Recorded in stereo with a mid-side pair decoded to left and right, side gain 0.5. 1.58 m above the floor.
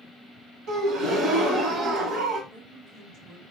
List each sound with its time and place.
0.7 s a gasp: 70° right, 1.4 m
2.5 s a woman speaking: 70° right, 1.4 m